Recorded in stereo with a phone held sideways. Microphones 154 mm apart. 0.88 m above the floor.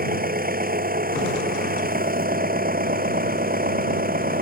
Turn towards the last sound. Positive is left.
turn(degrees=-60)  # may be behind; listen again after turning